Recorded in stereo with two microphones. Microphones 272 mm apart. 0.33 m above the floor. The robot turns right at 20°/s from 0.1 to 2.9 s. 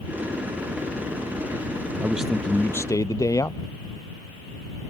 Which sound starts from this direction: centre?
A man speaking, at 2.0 s.